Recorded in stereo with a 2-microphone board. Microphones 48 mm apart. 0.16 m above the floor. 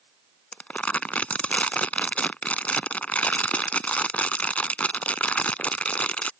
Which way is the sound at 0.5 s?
30° left (ahead or behind).